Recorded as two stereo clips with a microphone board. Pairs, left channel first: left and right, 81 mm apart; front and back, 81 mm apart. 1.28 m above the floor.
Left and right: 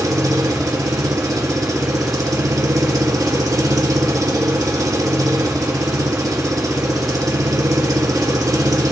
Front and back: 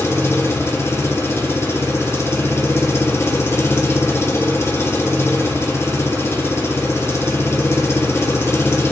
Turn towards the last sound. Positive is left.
turn(degrees=-55)